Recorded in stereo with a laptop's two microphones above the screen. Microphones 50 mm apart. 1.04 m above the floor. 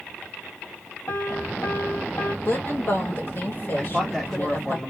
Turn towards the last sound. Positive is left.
turn(degrees=5)  # may be behind; listen again after turning